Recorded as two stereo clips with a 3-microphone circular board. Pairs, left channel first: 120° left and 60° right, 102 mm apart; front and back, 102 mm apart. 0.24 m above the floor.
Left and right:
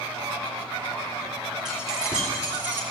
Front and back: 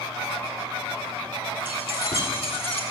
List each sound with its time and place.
1.6 s keys jangling: 25° left, 3.5 m; by 2.8 s 10° left, 2.5 m